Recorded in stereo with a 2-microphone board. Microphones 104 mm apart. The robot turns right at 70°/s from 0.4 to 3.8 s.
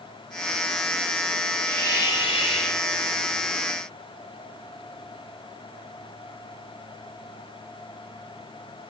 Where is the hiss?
10° left, 5.5 m; by 2.8 s 90° left, 5.5 m.